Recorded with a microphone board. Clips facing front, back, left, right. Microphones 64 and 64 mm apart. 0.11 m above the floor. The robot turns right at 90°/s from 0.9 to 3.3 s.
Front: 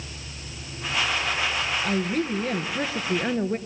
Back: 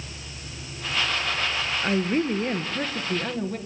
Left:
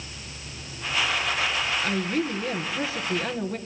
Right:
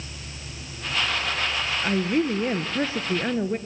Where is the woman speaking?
170° right, 1.3 m; by 3.6 s 35° right, 1.3 m.